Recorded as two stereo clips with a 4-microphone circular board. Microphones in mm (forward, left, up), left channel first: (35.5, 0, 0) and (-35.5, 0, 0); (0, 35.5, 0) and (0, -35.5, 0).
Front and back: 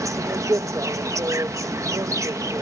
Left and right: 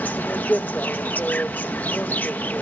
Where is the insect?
150° left.